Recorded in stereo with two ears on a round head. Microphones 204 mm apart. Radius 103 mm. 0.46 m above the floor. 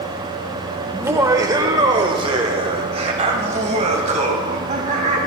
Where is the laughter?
10° right (ahead or behind), 1.3 m; by 5.2 s 35° right (ahead or behind), 3 m.